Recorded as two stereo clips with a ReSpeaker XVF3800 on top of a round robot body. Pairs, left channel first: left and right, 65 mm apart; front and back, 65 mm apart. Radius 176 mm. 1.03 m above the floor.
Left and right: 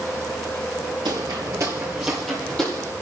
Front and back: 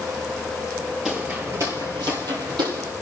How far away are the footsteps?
About 1.4 m.